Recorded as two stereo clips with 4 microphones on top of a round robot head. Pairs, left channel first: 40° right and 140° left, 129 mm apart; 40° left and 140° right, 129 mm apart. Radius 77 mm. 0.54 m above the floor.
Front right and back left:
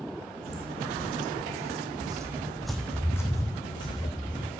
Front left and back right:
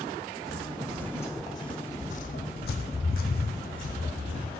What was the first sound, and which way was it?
Footsteps, 130° left.